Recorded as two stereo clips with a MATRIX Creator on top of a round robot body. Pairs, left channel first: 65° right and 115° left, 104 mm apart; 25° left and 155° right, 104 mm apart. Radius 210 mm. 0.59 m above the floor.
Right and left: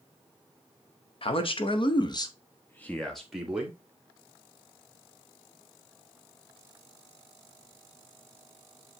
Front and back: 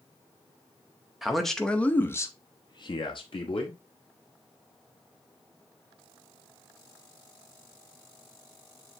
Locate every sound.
1.2 s a man speaking: 70° right, 1.7 m; by 3.8 s 35° left, 1.8 m